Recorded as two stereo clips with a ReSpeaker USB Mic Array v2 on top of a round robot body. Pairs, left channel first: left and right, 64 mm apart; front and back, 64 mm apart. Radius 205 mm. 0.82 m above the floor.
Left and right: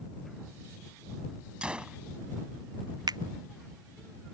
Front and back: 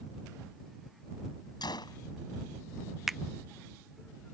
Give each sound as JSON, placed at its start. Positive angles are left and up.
{"t": 1.6, "sound": "a gunshot", "azimuth_deg": -15}
{"t": 3.1, "sound": "a finger snap", "azimuth_deg": -95}